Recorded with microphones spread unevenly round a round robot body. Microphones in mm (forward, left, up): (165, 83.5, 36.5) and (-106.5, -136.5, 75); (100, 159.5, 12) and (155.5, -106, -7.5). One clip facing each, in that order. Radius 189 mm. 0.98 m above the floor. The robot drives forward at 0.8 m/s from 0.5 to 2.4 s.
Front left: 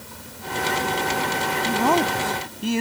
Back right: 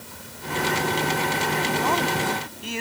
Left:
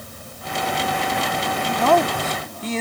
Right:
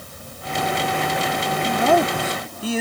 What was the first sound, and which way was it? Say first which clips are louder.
A woman speaking: front left 7 dB, even; straight ahead.